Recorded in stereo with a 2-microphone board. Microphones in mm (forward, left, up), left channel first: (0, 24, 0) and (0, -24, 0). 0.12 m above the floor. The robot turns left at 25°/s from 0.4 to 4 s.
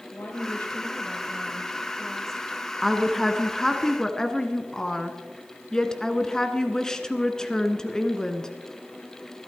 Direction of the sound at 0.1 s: 55° left.